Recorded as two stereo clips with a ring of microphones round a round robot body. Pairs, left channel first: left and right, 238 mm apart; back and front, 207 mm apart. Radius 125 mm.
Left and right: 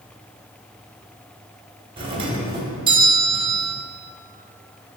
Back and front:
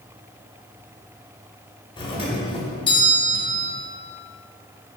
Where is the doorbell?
140° right, 1.6 m.